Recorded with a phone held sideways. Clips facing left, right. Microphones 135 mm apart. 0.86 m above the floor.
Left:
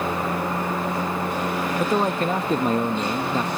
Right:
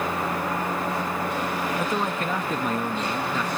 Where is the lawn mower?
30° left (ahead or behind); by 3.6 s 25° left (ahead or behind).